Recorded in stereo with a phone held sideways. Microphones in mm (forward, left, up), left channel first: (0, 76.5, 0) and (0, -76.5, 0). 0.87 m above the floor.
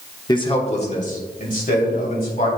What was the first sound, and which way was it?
A man speaking, 25° left (ahead or behind).